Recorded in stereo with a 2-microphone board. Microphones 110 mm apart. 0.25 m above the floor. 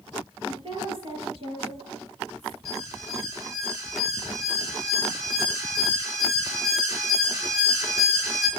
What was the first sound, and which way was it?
A woman speaking, 50° right (ahead or behind).